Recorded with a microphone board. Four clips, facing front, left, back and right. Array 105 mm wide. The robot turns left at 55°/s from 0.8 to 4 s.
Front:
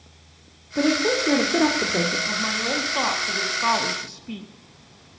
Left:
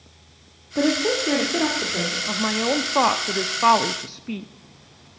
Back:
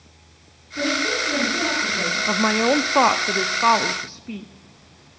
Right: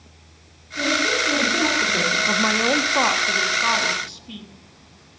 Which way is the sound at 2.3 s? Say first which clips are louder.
Right 1 dB, back 8 dB; 155° right.